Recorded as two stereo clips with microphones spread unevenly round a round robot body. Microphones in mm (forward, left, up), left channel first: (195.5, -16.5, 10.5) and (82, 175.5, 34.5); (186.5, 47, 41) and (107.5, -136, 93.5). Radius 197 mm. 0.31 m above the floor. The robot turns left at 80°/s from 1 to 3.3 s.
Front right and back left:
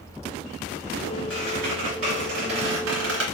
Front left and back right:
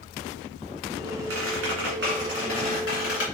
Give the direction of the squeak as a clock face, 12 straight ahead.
4 o'clock.